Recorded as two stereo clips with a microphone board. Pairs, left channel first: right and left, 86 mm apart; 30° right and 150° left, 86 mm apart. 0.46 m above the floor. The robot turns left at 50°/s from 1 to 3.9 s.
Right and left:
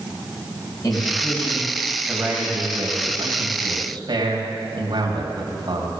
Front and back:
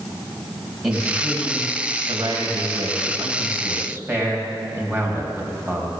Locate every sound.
0.8 s a man speaking: 125° right, 3 m; by 5.9 s 90° left, 3 m